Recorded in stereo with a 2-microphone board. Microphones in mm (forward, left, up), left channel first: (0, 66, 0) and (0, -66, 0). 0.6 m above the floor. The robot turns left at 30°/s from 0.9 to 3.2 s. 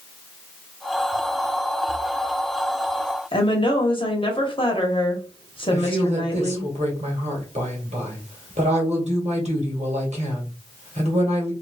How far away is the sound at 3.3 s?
About 1.1 m.